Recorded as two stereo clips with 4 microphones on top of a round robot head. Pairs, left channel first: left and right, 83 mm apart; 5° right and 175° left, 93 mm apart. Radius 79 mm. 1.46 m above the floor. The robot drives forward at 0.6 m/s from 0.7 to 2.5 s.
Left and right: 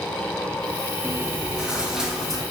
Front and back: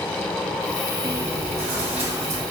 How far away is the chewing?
About 0.5 m.